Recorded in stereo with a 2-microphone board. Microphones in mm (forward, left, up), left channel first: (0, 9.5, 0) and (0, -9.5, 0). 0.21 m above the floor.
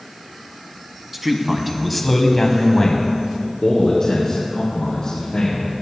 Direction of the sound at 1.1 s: 10° right (ahead or behind).